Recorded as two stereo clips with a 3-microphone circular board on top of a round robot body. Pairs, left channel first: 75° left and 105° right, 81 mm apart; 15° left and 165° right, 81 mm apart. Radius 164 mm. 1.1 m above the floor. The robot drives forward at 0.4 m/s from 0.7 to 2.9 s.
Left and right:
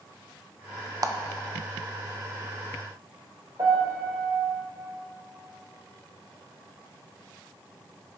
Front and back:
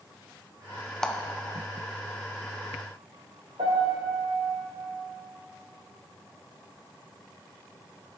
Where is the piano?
155° right, 1.0 m.